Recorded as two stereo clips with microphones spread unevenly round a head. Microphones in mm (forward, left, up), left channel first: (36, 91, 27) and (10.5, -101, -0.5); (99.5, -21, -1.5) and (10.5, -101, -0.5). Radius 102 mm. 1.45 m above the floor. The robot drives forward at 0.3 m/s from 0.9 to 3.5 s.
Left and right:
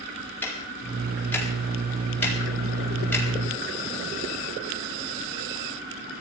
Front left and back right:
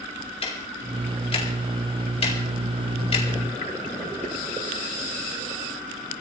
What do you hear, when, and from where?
0.4 s ticking: 5° left, 4 m